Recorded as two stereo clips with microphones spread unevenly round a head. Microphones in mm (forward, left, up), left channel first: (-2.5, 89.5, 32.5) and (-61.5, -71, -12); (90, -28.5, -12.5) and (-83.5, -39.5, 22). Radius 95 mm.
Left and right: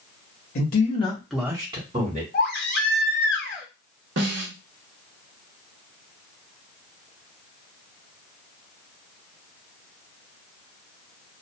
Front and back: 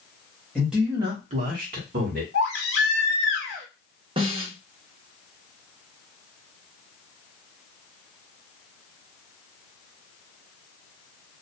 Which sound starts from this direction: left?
A man speaking, at 0.6 s.